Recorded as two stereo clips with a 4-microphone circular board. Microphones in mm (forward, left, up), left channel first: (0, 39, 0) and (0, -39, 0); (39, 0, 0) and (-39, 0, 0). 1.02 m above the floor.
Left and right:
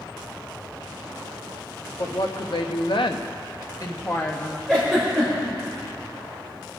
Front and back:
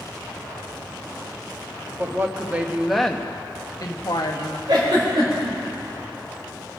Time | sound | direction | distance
2.0 | a woman speaking | 120° left | 1.5 m
4.7 | a giggle | 175° left | 5 m